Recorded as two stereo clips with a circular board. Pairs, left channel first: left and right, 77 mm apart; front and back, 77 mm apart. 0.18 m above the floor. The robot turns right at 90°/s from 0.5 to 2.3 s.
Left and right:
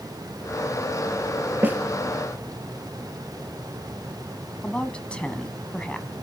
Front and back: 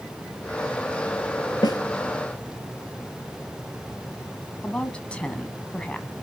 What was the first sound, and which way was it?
A snare drum, 25° right.